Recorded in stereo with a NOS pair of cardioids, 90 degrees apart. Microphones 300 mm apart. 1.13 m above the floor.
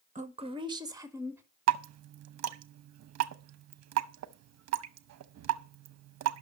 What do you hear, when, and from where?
0.1 s a woman speaking: 25° right, 1.3 m; by 1.4 s 10° right, 3 m
1.7 s dripping: 55° right, 0.9 m